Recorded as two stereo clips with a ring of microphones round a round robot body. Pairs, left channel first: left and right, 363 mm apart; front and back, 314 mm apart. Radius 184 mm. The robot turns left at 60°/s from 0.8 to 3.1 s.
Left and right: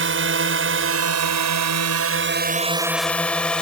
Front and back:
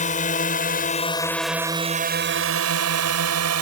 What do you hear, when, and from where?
0.0 s a drone: 55° right; by 3.6 s 175° left